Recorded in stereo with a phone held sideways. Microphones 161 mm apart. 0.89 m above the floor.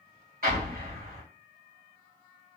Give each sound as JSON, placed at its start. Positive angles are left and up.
{"t": 0.4, "sound": "an explosion", "side_deg": -60, "distance_m": 1.5}